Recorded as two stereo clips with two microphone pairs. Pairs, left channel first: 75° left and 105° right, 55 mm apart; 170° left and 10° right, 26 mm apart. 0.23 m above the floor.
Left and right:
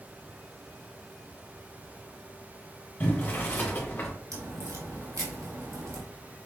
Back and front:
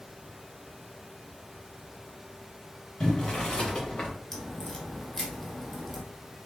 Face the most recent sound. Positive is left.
turn(degrees=-105)